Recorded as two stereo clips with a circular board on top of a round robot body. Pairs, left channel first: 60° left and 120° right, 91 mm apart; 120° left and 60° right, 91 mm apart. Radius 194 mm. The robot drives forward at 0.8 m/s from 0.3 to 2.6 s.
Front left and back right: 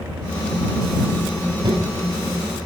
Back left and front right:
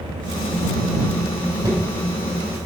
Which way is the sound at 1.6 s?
110° right.